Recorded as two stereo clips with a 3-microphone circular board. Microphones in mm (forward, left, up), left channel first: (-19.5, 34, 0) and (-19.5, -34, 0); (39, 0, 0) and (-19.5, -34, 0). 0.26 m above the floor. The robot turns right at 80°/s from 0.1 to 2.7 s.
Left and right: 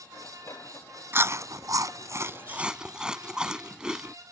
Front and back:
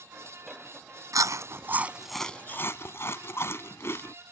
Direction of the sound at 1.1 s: 140° right.